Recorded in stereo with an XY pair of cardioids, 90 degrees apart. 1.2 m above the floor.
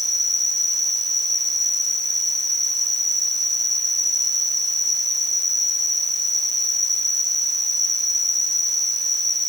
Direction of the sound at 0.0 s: 60° right.